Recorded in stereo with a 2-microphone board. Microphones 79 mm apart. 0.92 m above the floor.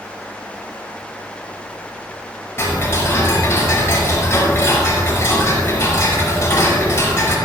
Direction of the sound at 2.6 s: 30° left (ahead or behind).